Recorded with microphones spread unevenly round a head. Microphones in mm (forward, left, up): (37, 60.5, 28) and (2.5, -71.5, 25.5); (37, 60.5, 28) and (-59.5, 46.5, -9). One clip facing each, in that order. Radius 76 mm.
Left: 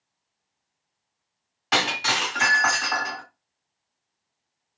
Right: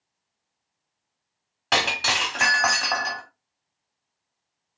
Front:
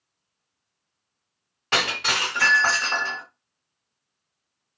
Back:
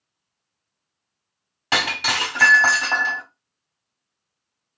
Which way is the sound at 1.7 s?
135° right.